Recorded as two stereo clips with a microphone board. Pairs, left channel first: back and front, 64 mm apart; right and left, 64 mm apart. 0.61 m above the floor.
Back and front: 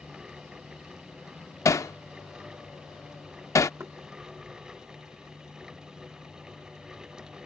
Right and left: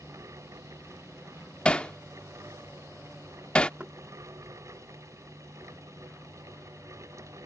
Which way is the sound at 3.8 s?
30° left.